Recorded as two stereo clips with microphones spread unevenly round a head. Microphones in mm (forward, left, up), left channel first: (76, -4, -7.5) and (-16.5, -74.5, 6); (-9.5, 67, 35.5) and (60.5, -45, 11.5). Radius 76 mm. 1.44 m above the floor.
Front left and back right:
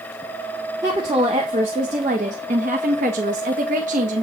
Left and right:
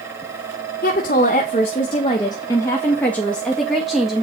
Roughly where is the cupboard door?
No cupboard door in this recording.